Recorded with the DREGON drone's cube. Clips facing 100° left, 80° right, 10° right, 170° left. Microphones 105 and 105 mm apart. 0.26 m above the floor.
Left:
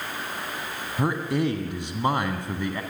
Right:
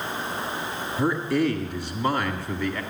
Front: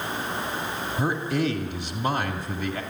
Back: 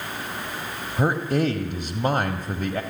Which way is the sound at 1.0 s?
160° left.